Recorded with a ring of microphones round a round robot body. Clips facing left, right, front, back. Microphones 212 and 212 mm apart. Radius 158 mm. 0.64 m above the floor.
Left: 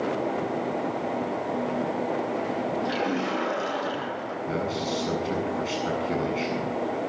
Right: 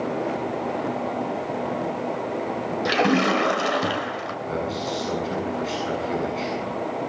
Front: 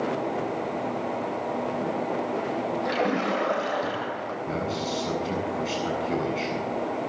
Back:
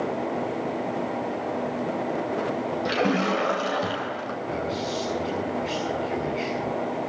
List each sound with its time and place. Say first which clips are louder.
2.9 s a splash: right 6 dB, back 3 dB; 115° right, 2.5 m
4.5 s a man speaking: right 1 dB, even; 30° left, 8 m